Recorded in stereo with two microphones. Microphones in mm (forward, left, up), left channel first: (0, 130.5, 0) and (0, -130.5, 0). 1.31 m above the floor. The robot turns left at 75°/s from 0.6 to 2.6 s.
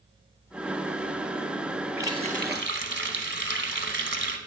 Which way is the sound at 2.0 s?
10° right.